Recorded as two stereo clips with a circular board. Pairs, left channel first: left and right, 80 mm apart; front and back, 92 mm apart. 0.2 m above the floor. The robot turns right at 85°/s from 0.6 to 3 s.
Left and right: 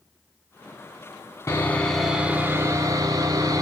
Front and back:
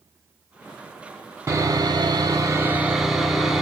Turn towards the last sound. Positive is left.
turn(degrees=-95)